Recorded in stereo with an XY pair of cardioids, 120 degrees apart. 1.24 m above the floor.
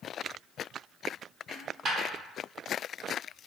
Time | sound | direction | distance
1.5 | a dropped coin | 35° right | 1.9 m